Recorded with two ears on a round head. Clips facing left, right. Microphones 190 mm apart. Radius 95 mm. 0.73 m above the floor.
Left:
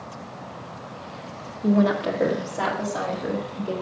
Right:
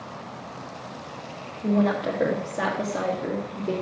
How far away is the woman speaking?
About 0.9 m.